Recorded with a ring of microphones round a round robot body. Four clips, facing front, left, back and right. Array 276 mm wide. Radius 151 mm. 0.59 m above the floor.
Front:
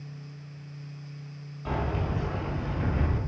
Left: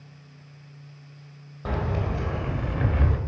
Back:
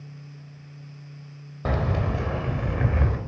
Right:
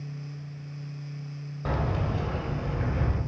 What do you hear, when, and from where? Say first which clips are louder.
1.6 s keys jangling: left 1 dB, back 4 dB; 175° right, 1.8 m; by 3.2 s 140° left, 1.6 m